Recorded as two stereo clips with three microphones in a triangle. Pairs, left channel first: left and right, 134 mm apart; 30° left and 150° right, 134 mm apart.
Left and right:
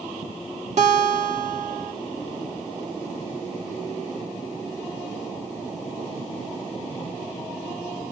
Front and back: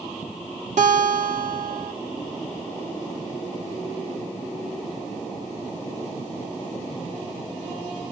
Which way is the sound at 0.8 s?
125° right.